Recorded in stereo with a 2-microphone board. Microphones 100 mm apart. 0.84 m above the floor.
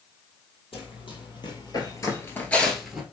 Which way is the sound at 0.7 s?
65° left (ahead or behind).